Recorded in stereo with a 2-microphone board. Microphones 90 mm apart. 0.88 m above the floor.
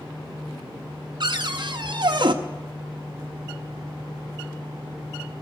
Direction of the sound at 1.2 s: 55° right (ahead or behind).